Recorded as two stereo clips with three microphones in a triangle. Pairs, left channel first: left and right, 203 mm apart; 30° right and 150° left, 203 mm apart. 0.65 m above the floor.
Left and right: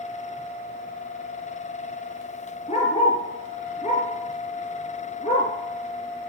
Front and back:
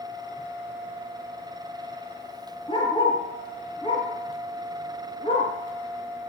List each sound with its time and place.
2.7 s a dog barking: 35° left, 3.5 m